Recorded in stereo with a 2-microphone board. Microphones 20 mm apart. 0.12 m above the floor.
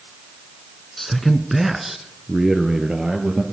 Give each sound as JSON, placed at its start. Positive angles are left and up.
{"t": 1.0, "sound": "a man speaking", "side_deg": 15, "distance_m": 1.1}